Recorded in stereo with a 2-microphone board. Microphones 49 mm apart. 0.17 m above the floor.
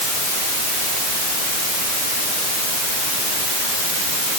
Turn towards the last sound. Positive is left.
No sound to turn to.